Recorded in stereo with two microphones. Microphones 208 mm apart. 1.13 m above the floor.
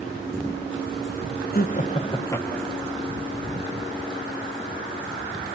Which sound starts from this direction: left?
Laughter, at 1.5 s.